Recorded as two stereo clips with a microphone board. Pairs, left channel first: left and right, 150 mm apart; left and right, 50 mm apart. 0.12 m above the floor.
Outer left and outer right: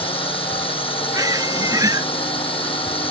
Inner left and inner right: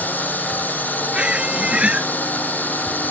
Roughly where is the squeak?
Right.